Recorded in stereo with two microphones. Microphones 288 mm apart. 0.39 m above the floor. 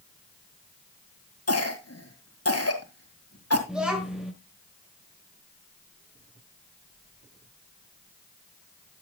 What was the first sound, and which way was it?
A cough, 60° left (ahead or behind).